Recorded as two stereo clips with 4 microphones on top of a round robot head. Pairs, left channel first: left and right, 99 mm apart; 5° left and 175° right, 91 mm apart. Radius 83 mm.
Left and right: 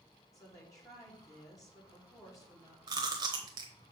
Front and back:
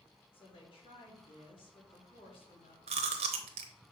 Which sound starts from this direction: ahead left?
A woman speaking, at 0.3 s.